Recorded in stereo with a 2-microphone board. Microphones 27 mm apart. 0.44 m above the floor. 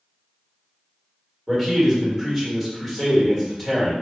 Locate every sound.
1.5 s a man speaking: 5° left (ahead or behind), 1.4 m